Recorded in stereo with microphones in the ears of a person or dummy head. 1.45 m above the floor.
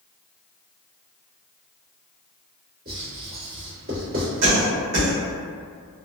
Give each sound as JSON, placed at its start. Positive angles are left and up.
{"t": 2.9, "sound": "writing", "side_deg": -50, "distance_m": 1.8}
{"t": 4.4, "sound": "a cough", "side_deg": -70, "distance_m": 1.4}